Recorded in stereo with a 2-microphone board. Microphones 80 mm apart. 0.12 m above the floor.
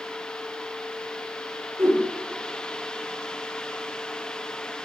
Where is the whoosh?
35° right (ahead or behind), 5.5 m.